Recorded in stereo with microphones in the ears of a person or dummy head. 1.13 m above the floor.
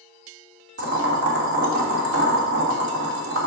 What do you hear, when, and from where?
0.8 s boiling: 70° right (ahead or behind), 2 m